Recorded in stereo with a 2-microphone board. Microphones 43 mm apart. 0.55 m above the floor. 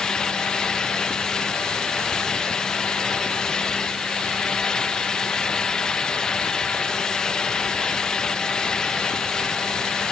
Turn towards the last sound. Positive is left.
No sound to turn to.